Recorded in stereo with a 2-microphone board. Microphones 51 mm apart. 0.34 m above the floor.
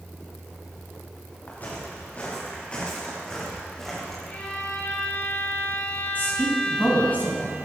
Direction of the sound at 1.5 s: 40° left (ahead or behind).